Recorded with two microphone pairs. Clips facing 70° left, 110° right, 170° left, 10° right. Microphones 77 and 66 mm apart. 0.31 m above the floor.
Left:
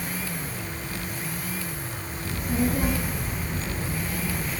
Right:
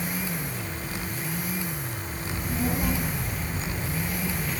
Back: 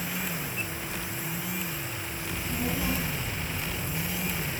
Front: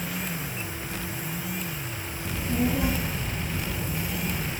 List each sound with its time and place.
2.2 s a child speaking: 20° left, 3.5 m